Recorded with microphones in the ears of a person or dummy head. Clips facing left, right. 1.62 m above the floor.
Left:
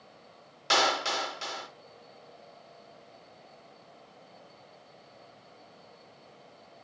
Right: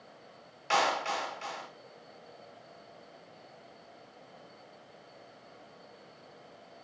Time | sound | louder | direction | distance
0.7 | a clap | left 1 dB | 55° left (ahead or behind) | 3 m